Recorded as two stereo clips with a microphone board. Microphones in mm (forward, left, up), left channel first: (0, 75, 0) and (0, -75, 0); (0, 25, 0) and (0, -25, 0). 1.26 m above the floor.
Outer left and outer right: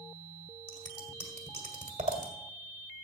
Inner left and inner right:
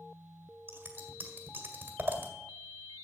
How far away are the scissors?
About 1.8 m.